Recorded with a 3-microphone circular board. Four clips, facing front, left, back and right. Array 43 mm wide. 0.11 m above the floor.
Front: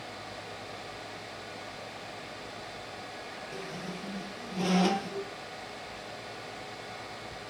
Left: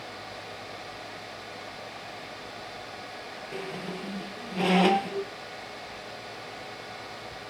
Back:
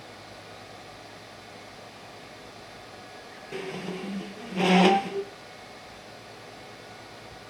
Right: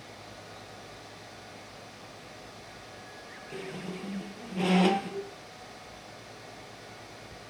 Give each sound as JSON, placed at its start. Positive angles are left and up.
{"t": 3.5, "sound": "a squeak", "azimuth_deg": 160, "distance_m": 0.7}